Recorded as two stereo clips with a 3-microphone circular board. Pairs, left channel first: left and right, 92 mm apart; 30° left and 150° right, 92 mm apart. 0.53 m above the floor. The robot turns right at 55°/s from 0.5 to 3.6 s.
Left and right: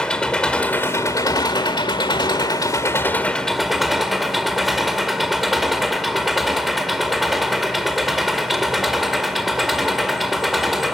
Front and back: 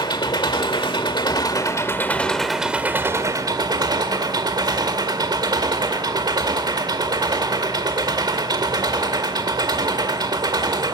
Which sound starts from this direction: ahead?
An engine running, at 0.0 s.